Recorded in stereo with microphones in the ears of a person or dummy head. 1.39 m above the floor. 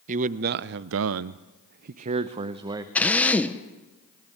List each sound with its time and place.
0.1 s a man speaking: 45° right (ahead or behind), 1.0 m; by 2.9 s 20° right (ahead or behind), 1.2 m
3.0 s a drill: 5° left (ahead or behind), 1.2 m